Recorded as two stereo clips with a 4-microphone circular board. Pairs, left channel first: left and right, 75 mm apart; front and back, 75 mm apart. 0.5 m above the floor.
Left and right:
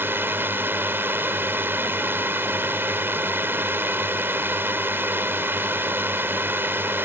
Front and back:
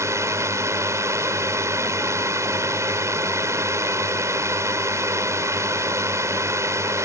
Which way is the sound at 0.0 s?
145° right.